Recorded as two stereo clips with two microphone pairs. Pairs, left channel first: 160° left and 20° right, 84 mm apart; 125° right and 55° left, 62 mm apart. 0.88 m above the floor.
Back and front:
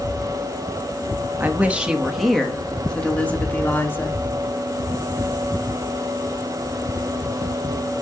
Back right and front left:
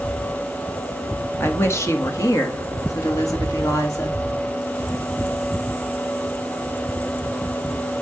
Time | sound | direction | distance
1.4 | a woman speaking | 85° right | 1.3 m